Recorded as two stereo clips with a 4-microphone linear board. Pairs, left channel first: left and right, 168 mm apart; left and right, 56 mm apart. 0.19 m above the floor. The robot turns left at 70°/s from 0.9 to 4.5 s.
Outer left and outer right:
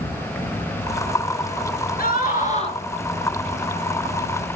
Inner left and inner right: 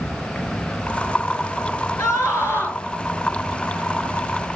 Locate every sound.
0.0 s an insect: 160° left, 3.5 m; by 4.6 s 90° right, 3.5 m
2.0 s a scream: 90° left, 3 m; by 2.8 s 35° left, 3 m